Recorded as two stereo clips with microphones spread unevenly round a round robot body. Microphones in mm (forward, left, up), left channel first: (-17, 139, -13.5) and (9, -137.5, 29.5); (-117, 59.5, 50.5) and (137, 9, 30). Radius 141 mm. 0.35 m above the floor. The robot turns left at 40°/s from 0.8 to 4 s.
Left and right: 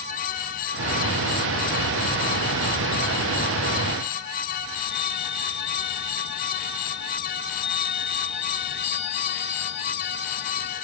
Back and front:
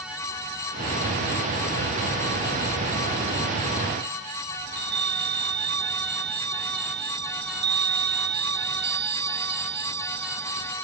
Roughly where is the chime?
Ahead left.